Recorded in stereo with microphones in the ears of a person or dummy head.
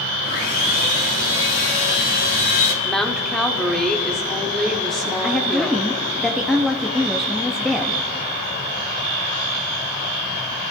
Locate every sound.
0.2 s sawing: 60° left (ahead or behind), 3.5 m
2.8 s a woman speaking: 5° left (ahead or behind), 1.0 m
5.2 s a woman speaking: 5° left (ahead or behind), 0.7 m